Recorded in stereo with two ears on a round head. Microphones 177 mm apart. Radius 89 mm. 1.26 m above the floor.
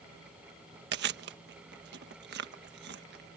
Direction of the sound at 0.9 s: 60° right (ahead or behind).